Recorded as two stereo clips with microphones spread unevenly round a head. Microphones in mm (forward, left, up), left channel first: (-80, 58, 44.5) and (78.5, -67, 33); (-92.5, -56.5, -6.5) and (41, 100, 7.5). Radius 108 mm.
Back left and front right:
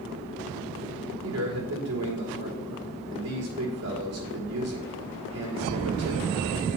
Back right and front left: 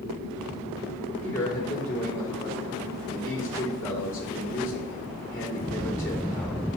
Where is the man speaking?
50° right, 3.5 m.